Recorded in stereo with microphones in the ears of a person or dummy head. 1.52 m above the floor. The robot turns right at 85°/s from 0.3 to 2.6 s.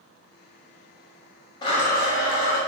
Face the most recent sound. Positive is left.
turn(degrees=110)